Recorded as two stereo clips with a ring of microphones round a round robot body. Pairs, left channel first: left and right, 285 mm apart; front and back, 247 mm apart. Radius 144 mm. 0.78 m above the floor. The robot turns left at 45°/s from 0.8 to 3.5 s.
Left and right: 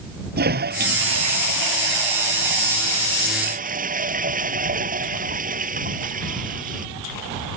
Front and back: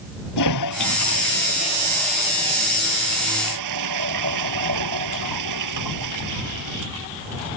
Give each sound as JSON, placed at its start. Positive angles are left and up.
{"t": 0.4, "sound": "a toilet flushing", "azimuth_deg": -30}